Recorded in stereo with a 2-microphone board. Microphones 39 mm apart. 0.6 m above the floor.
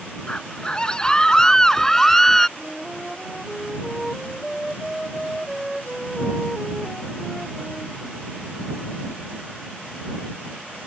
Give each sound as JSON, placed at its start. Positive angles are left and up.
{"t": 0.3, "sound": "a scream", "side_deg": 25}
{"t": 2.6, "sound": "a flute", "side_deg": 5}